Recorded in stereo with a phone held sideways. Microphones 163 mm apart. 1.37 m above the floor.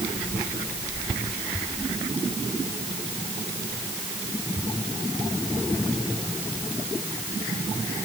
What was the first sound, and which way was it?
Only background noise.